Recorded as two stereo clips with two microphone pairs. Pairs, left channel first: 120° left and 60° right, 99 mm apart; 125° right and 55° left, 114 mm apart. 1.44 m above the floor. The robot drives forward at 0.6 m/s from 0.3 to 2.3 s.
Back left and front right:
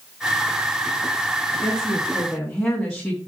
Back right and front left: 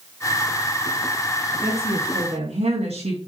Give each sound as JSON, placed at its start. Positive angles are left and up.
{"t": 1.6, "sound": "a woman speaking", "azimuth_deg": 40, "distance_m": 3.5}